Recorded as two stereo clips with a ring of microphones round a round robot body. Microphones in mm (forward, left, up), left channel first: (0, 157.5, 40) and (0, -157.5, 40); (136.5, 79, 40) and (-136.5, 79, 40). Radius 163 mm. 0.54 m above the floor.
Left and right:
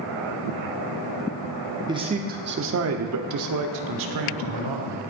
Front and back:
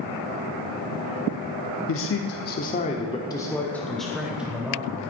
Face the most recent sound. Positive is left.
turn(degrees=-100)